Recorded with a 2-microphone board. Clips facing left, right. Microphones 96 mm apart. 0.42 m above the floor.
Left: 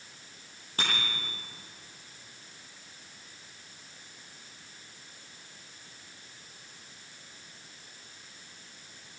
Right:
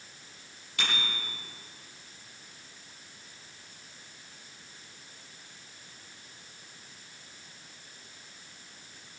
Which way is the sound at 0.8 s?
35° left (ahead or behind).